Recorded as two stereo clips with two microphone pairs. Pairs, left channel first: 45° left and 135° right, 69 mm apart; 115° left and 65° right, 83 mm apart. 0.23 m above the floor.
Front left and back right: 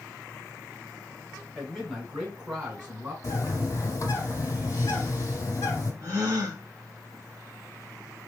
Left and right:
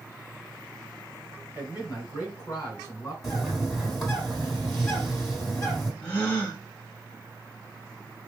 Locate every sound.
1.6 s a man speaking: 140° left, 3 m; by 3.1 s 160° left, 3 m
3.2 s a bird: 30° left, 1.5 m
6.0 s a gasp: straight behind, 2 m